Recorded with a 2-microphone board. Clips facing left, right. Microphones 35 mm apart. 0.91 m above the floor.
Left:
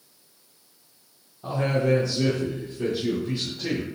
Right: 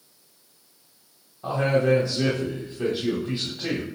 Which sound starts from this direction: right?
A man speaking, at 1.4 s.